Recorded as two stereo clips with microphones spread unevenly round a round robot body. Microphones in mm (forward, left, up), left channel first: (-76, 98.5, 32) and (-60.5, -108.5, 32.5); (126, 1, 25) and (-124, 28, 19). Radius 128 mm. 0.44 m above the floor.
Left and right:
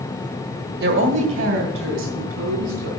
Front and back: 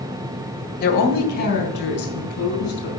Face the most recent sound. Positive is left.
turn(degrees=-55)